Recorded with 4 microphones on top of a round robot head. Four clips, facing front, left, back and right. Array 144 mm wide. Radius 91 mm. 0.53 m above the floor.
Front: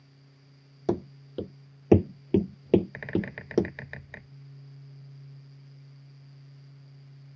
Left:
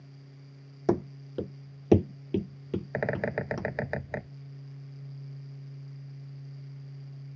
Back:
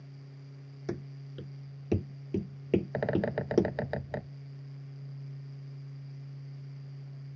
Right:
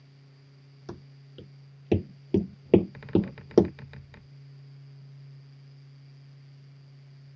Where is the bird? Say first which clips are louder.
Right 2 dB, back 2 dB; 130° left.